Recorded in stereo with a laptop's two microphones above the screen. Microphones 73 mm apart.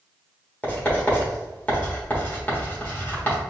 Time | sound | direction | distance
0.6 | writing | 20° left (ahead or behind) | 1.3 m